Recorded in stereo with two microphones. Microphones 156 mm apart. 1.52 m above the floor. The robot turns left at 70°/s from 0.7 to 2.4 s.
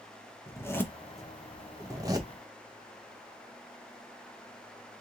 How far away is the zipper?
About 0.7 m.